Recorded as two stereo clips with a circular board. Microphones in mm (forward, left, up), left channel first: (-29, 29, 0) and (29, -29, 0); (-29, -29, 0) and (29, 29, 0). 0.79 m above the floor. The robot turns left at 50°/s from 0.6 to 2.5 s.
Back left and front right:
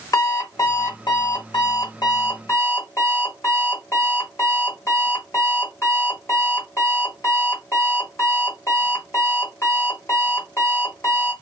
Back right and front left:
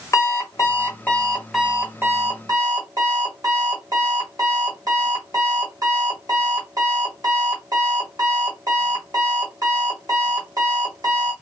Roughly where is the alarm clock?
Behind.